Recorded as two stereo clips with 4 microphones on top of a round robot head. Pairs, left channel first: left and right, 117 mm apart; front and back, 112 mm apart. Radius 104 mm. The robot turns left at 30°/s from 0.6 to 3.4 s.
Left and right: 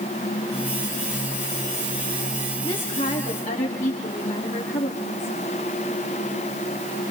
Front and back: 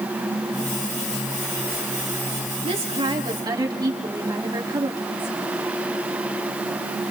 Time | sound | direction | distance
2.6 | a woman speaking | 150° left | 3.5 m